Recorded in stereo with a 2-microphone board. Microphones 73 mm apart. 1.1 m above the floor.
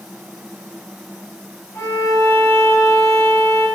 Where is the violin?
35° left (ahead or behind), 1.4 m.